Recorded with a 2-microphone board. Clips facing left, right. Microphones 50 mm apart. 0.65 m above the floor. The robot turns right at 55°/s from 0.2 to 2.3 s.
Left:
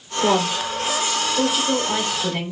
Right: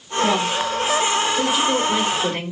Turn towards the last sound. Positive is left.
turn(degrees=-35)  # may be behind; listen again after turning